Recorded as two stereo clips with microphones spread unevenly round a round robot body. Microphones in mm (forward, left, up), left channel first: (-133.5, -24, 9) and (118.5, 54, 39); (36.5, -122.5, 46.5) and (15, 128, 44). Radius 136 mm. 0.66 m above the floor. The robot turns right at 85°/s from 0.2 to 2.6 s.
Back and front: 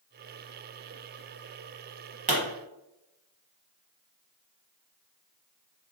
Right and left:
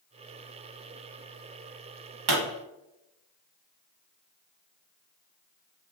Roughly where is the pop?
Left.